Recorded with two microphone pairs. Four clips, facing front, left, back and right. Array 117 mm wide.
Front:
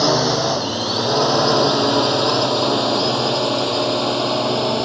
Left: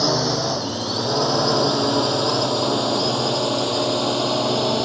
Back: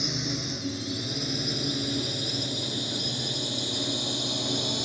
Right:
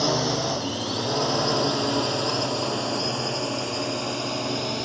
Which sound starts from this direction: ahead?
A drone, at 0.0 s.